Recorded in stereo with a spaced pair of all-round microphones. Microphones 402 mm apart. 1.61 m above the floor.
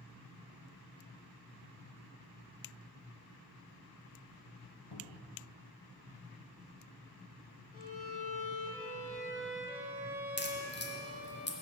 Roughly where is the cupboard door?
Left.